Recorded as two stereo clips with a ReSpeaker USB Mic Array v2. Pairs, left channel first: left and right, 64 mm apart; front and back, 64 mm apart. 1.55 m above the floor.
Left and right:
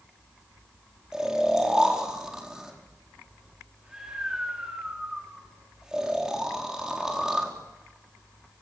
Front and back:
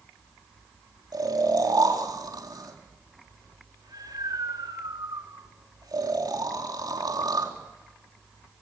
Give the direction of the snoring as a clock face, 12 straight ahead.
6 o'clock.